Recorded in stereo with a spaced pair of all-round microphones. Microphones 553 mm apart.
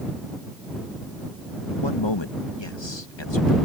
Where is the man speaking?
50° left (ahead or behind).